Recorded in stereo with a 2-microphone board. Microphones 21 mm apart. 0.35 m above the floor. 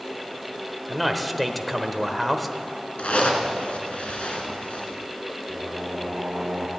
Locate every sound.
0.9 s a man speaking: 5° left (ahead or behind), 0.9 m
3.0 s a zipper: 75° left (ahead or behind), 2 m
5.5 s singing: 70° right (ahead or behind), 2 m